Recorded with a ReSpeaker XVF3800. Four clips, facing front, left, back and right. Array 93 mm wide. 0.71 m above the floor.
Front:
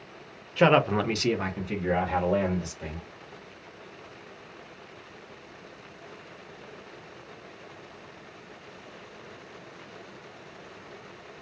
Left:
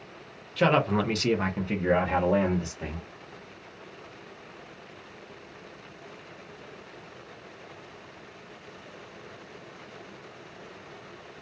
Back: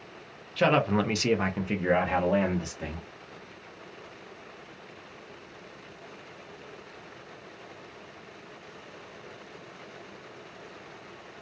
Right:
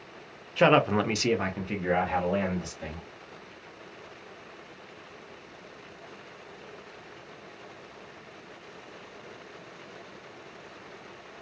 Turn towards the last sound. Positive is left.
turn(degrees=155)